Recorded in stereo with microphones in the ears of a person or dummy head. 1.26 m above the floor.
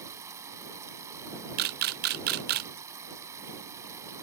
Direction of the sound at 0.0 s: 15° right (ahead or behind).